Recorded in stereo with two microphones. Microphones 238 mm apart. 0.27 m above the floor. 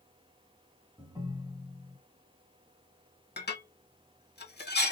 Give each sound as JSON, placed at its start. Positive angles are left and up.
{"t": 1.0, "sound": "a ringtone", "side_deg": -15, "distance_m": 0.8}
{"t": 3.4, "sound": "dishes clattering", "side_deg": 45, "distance_m": 0.8}